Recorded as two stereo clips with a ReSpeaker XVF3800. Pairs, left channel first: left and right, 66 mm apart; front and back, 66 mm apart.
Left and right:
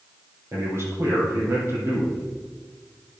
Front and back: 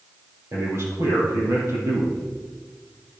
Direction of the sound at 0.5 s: 135° right.